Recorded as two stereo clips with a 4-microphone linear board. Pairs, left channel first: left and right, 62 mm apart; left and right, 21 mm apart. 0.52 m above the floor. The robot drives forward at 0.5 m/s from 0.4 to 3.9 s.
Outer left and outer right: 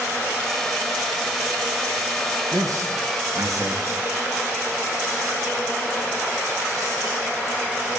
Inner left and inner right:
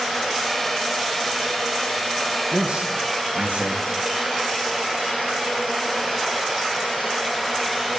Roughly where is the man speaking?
Right.